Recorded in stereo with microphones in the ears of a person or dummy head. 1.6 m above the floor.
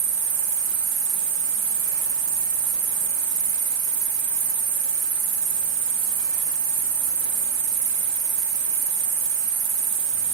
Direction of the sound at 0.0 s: 70° right (ahead or behind).